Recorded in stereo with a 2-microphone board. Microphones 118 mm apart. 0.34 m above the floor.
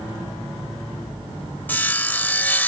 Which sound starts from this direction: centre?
Sawing, at 1.7 s.